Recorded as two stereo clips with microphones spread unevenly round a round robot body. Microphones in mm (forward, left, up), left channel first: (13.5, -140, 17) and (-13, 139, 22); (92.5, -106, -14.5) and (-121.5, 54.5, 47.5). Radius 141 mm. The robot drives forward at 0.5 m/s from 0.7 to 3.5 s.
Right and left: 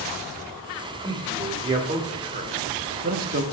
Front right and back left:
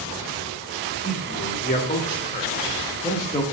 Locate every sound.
1.0 s a man speaking: 20° left, 2.5 m; by 3.4 s 40° left, 1.2 m